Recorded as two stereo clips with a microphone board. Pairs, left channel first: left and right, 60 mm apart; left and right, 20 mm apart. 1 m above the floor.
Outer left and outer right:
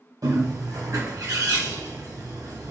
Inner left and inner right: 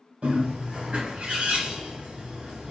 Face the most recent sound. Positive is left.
turn(degrees=-70)  # may be behind; listen again after turning